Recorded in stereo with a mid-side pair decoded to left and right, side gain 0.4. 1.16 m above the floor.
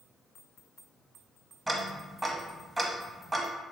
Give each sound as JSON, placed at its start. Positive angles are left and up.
{"t": 1.7, "sound": "ticking", "azimuth_deg": -25, "distance_m": 0.9}